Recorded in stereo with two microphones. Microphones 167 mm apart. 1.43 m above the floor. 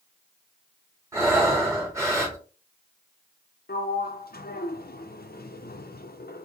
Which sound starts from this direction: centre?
Breathing, at 1.1 s.